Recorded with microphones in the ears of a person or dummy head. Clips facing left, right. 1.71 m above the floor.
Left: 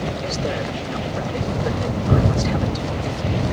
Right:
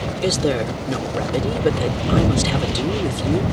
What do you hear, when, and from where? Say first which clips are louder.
0.2 s a woman speaking: right 5 dB; 45° right (ahead or behind)